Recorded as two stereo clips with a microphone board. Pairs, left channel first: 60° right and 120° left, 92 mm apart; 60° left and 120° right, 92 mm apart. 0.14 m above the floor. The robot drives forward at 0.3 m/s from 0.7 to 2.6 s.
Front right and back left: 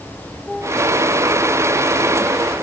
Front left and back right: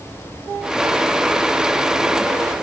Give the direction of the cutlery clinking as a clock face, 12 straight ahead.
No cutlery clinking in this recording.